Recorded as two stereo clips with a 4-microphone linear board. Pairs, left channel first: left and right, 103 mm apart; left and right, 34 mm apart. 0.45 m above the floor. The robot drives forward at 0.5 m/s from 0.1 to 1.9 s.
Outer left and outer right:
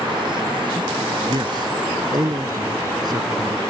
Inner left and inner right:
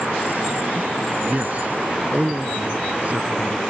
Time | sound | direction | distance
1.3 | a man speaking | 45° right (ahead or behind) | ?